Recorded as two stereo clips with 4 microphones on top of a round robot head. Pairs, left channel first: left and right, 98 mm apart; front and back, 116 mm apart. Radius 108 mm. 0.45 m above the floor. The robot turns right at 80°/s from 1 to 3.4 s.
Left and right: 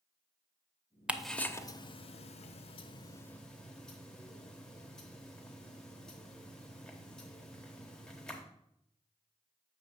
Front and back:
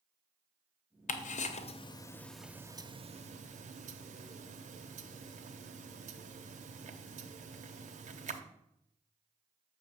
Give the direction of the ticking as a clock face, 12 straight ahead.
12 o'clock.